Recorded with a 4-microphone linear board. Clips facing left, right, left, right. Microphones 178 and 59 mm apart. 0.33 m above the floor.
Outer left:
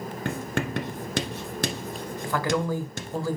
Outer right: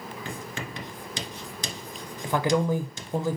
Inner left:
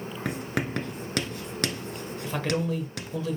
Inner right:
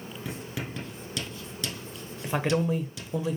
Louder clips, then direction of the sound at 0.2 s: Outer left 10 dB, inner left 7 dB; 65° left (ahead or behind).